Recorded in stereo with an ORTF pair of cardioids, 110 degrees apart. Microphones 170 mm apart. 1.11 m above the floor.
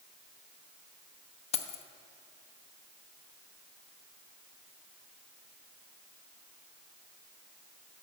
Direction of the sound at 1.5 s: 35° left.